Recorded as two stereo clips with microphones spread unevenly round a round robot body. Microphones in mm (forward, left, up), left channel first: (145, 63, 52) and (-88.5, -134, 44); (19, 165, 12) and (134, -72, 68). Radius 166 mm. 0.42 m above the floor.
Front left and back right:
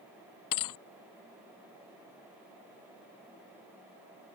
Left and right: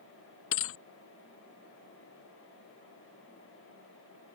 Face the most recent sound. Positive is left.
turn(degrees=70)